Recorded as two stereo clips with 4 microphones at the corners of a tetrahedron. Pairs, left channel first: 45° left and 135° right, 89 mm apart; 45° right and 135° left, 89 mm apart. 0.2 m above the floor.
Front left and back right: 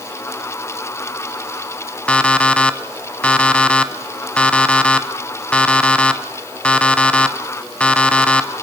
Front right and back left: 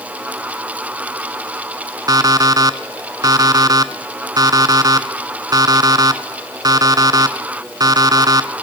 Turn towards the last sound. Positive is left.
turn(degrees=120)